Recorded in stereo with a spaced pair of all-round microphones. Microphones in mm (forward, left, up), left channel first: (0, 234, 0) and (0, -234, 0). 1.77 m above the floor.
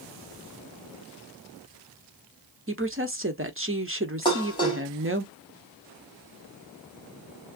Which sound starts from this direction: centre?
Dishes clattering, at 4.2 s.